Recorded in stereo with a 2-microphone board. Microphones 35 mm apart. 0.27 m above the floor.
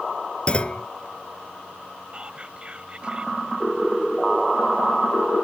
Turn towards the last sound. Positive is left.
turn(degrees=-30)  # may be behind; listen again after turning